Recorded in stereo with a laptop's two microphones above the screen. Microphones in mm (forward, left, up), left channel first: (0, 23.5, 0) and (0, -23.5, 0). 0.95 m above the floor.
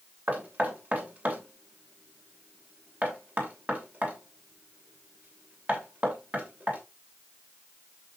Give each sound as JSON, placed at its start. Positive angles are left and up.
{"t": 0.3, "sound": "knocking", "side_deg": -35, "distance_m": 2.5}